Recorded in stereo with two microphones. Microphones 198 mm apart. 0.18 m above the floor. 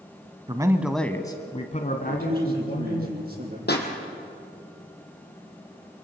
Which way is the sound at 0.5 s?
25° right (ahead or behind).